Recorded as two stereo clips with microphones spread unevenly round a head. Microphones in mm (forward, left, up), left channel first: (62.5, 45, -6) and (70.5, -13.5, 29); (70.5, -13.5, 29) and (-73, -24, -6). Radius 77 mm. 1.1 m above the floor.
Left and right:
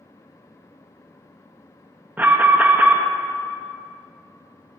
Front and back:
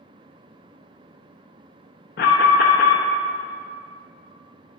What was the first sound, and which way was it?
An alarm, 15° right.